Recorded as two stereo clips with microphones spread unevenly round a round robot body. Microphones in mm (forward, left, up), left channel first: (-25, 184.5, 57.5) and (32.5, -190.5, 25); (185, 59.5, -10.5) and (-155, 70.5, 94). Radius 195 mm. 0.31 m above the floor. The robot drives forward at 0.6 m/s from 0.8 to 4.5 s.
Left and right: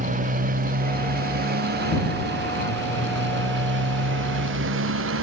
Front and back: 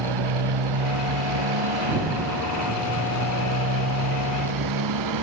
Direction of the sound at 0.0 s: 150° right.